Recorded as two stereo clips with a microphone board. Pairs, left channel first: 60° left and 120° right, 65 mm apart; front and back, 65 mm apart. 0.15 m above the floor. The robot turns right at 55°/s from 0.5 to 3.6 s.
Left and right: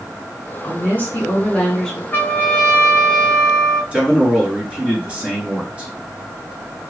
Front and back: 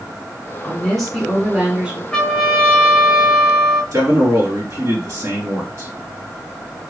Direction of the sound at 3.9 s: 175° left.